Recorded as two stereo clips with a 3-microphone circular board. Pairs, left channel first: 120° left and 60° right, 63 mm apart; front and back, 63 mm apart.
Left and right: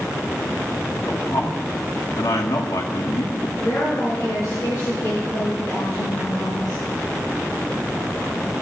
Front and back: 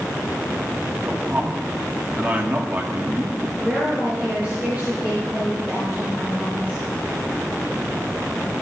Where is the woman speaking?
115° left, 5.5 m.